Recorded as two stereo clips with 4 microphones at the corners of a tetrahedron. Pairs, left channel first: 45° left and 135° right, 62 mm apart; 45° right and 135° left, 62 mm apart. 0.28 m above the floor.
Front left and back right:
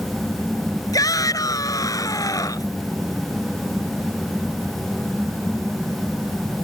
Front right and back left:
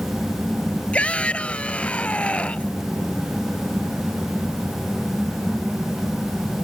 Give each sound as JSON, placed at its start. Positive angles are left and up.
{"t": 0.9, "sound": "a shout", "azimuth_deg": 25}